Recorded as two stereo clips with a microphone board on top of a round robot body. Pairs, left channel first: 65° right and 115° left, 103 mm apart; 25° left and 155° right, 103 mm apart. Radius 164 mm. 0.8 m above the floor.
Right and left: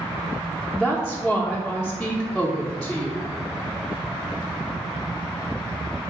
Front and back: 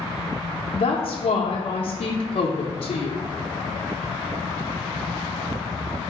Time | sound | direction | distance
0.7 | a woman speaking | 20° left | 0.6 m